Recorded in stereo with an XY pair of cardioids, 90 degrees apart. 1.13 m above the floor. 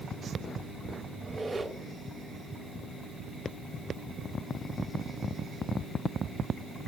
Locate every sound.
1.2 s a squeak: 40° right, 3.5 m